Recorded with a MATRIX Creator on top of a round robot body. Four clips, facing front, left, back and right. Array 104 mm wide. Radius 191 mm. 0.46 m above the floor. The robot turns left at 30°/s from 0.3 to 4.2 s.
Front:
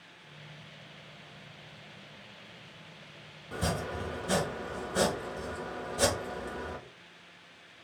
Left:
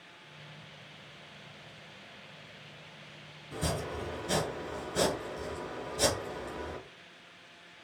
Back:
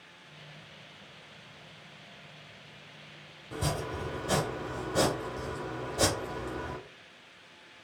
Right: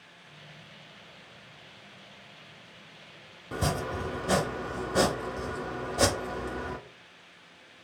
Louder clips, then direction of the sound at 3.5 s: Right 4 dB, even; 85° right.